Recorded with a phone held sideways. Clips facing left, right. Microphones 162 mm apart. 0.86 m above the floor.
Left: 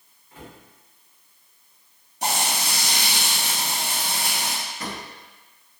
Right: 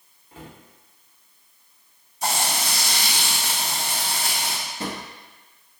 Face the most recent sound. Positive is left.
turn(degrees=-30)  # may be behind; listen again after turning